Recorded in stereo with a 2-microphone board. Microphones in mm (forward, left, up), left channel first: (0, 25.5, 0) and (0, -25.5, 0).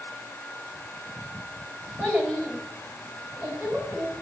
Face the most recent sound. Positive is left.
turn(degrees=-30)  # may be behind; listen again after turning